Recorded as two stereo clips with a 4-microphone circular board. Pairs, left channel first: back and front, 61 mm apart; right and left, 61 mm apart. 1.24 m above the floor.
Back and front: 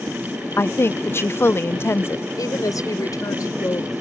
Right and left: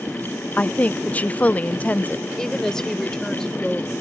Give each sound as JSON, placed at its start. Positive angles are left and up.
{"t": 0.6, "sound": "a woman speaking", "azimuth_deg": -150}
{"t": 2.4, "sound": "a woman speaking", "azimuth_deg": -170}